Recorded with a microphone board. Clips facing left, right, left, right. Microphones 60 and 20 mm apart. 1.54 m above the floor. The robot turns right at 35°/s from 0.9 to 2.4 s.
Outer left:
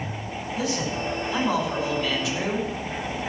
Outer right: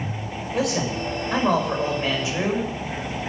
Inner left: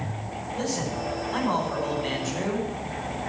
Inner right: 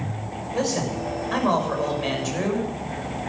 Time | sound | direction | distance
0.5 | a man speaking | 75° right | 6.5 m